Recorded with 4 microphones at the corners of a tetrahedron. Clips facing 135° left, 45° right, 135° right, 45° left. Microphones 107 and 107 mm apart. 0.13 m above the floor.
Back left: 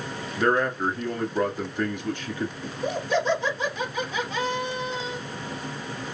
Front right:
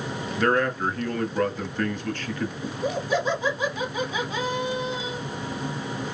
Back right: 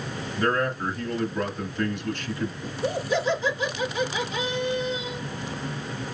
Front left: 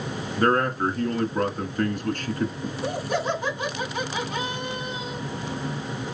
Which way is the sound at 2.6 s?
35° left.